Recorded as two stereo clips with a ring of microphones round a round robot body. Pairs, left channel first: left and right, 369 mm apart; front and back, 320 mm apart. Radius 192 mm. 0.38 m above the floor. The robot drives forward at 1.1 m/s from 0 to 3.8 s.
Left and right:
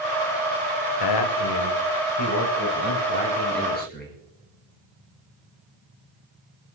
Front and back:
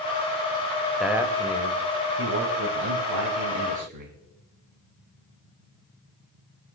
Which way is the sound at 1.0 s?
90° left.